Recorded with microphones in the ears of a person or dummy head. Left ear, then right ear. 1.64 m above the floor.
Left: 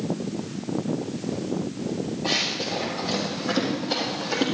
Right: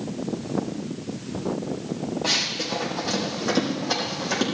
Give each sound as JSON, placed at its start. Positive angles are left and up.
{"t": 2.2, "sound": "running footsteps", "side_deg": -50, "distance_m": 3.5}